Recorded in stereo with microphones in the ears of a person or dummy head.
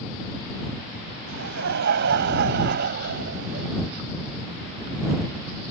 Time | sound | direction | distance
1.3 | laughter | 60° right (ahead or behind) | ?